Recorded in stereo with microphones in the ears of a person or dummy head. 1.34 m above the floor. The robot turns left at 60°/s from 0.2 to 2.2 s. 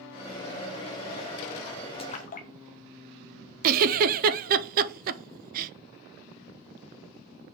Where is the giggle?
50° right (ahead or behind), 0.7 m.